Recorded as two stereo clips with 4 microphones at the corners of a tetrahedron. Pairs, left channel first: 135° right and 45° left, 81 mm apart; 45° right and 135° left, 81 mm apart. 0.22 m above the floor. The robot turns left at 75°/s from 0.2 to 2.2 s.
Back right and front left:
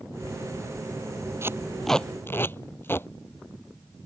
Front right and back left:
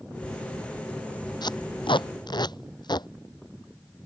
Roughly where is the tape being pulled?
Ahead.